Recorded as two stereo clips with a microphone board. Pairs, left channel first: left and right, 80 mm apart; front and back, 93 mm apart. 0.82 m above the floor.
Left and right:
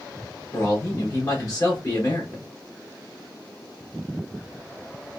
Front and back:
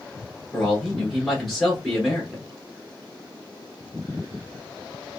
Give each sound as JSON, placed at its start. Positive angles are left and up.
{"t": 0.5, "sound": "a man speaking", "azimuth_deg": 90, "distance_m": 1.0}